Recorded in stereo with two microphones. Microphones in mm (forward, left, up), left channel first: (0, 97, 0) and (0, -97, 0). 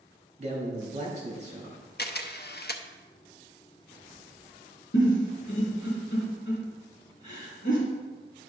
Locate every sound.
0.4 s a man speaking: 35° right (ahead or behind), 3 m
2.0 s a camera shutter: 55° left (ahead or behind), 0.7 m
4.9 s a giggle: 70° left (ahead or behind), 3.5 m